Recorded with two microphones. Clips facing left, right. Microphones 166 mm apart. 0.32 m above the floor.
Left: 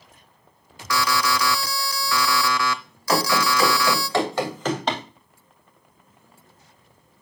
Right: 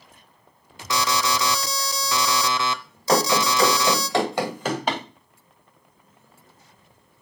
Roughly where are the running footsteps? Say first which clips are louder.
Right 1 dB; right.